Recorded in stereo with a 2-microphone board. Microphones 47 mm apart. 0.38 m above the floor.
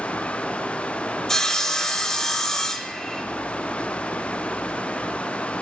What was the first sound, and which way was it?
Sawing, 10° left (ahead or behind).